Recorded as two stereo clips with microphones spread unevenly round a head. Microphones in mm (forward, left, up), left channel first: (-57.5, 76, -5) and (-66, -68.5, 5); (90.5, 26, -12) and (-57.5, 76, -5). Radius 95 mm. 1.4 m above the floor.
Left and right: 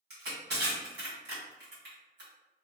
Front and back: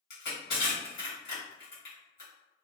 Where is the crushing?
65° right, 1.6 m.